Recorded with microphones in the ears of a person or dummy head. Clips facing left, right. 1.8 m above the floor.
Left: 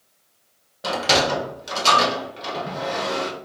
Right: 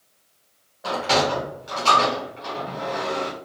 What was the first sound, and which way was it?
A sliding door, 45° left (ahead or behind).